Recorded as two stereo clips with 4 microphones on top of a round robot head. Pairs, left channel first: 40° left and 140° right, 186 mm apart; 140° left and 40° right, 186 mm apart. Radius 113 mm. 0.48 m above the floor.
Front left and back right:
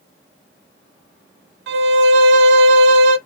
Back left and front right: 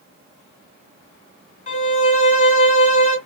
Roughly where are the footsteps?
I don't hear footsteps.